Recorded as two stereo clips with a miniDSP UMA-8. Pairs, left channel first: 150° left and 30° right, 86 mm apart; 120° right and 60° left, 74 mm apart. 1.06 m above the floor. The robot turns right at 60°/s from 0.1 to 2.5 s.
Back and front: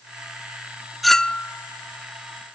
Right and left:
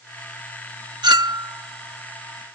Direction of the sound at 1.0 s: 60° left.